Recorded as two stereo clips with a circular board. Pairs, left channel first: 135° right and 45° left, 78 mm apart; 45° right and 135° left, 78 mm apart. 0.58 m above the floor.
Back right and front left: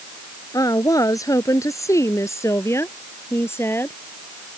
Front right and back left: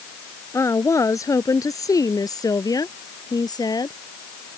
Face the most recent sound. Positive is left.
turn(degrees=-75)